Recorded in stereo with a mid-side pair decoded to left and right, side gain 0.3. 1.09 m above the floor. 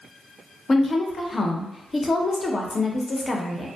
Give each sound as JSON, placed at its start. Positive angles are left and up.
{"t": 0.7, "sound": "a woman speaking", "azimuth_deg": 45, "distance_m": 0.7}